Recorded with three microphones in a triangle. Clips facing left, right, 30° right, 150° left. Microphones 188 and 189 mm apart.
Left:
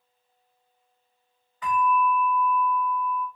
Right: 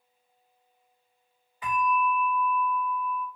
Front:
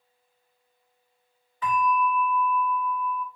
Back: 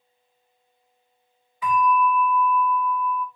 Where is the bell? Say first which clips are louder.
Left 3 dB, back 4 dB; 145° right, 1.5 m.